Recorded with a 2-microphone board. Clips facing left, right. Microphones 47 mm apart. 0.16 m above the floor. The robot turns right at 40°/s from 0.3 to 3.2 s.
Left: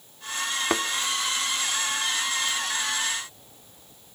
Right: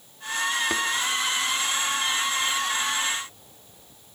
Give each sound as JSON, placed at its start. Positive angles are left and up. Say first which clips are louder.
{"t": 0.7, "sound": "a thud", "louder": "left 1 dB", "side_deg": 25, "distance_m": 0.7}